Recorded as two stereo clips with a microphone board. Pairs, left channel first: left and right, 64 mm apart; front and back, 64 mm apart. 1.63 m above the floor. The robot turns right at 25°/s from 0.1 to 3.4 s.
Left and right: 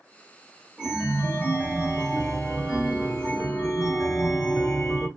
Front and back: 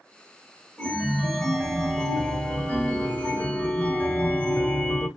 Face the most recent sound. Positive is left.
turn(degrees=-10)